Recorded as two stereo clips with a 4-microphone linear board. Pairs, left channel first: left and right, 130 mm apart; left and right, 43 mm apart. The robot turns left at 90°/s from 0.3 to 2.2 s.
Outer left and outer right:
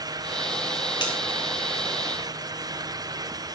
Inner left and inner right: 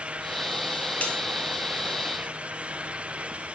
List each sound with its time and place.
1.0 s a bell: 35° left (ahead or behind), 1.4 m; by 1.2 s 45° left (ahead or behind), 1.4 m